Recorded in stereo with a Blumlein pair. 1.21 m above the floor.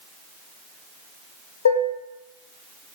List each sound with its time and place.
1.6 s dishes clattering: 65° left, 0.6 m